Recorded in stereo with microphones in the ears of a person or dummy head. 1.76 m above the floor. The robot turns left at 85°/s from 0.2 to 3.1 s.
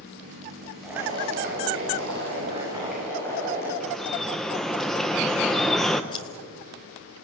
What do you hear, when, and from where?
0.8 s boiling: 5° left, 9.5 m; by 3.7 s 170° left, 9.5 m
3.8 s dripping: 5° left (ahead or behind), 1.3 m
6.1 s scissors: 30° left (ahead or behind), 2 m